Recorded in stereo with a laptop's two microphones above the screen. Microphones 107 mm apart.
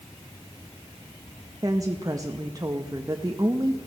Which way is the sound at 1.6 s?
30° right (ahead or behind).